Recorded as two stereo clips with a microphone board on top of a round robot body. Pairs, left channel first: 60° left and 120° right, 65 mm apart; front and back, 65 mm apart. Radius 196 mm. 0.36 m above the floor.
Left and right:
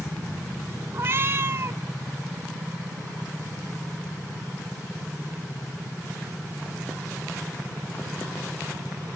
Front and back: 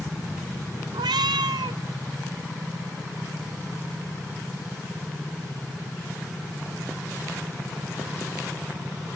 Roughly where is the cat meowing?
Behind.